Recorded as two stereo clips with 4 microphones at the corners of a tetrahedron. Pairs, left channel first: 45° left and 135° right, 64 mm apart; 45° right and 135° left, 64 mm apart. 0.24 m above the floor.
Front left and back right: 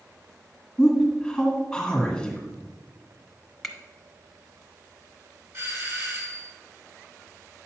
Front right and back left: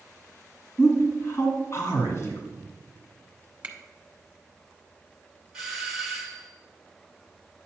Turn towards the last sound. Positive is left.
turn(degrees=-140)